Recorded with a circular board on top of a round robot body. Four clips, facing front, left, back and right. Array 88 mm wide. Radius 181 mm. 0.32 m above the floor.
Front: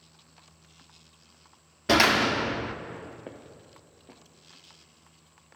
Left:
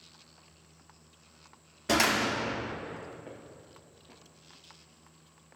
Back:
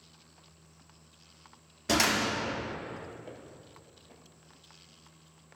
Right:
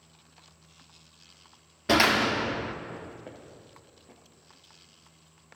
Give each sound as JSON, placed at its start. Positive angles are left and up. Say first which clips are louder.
{"t": 1.9, "sound": "a door slam", "louder": "right 4 dB, front 6 dB", "azimuth_deg": -30, "distance_m": 0.7}
{"t": 3.3, "sound": "footsteps", "louder": "right 1 dB, front 2 dB", "azimuth_deg": -10, "distance_m": 2.5}